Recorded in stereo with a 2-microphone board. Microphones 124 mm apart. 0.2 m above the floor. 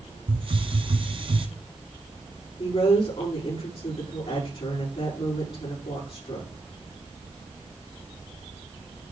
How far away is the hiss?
About 1.1 m.